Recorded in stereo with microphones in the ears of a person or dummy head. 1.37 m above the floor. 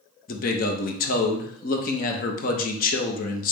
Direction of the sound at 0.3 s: 55° left (ahead or behind).